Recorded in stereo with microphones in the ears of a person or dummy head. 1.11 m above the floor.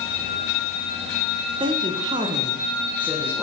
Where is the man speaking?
20° right (ahead or behind), 0.7 m; by 3.4 s 5° right (ahead or behind), 1.0 m.